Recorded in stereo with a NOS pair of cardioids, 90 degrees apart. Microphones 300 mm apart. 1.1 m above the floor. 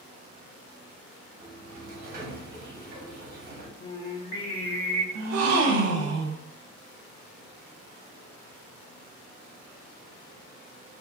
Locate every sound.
1.4 s a sliding door: 35° right, 0.9 m
3.8 s singing: 50° left, 1.1 m
5.2 s a gasp: 55° right, 0.7 m